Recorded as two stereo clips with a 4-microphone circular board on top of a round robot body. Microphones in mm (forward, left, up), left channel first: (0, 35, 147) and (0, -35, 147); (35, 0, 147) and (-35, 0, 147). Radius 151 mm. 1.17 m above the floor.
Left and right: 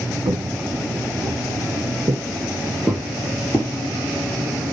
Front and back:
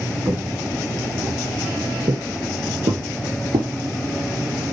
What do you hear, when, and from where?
0.2 s footsteps: 120° right, 3.5 m; by 3.7 s 145° left, 2 m